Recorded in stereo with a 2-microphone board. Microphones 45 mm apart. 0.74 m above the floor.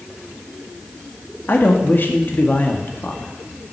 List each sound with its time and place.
1.5 s a man speaking: 45° left (ahead or behind), 1.5 m